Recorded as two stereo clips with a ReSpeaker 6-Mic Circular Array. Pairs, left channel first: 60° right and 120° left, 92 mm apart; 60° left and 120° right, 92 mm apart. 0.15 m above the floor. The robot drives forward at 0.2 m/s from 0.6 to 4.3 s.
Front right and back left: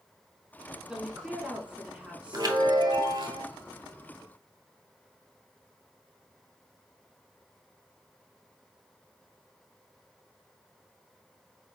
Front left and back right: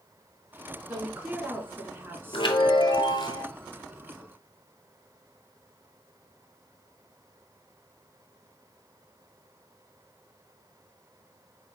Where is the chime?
80° left, 0.9 m; by 3.5 s 100° left, 0.9 m.